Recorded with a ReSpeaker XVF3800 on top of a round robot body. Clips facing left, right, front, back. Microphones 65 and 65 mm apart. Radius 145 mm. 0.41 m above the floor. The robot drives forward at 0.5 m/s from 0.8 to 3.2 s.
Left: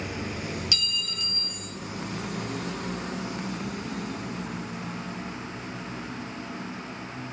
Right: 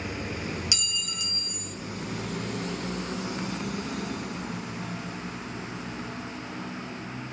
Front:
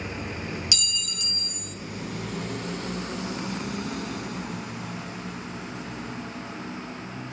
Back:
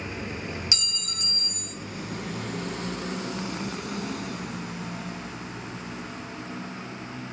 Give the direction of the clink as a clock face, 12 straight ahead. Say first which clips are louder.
Left 2 dB, front 2 dB; 5 o'clock.